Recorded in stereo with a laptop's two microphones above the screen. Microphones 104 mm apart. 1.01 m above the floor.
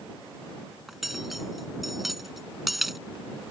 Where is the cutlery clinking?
Centre (ahead or behind).